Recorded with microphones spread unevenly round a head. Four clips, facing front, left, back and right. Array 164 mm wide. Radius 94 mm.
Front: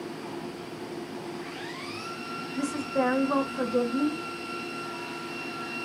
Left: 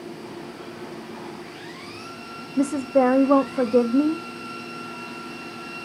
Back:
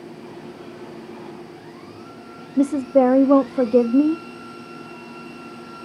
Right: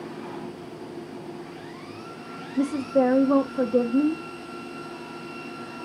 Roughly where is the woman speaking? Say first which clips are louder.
Left 2 dB, back 12 dB; behind left.